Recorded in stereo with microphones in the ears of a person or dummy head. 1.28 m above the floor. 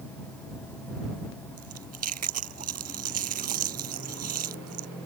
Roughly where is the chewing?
Right.